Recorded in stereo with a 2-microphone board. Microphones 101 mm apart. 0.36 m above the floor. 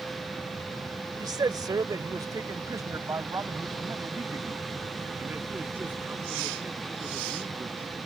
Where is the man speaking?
40° right (ahead or behind); by 8.1 s 15° right (ahead or behind).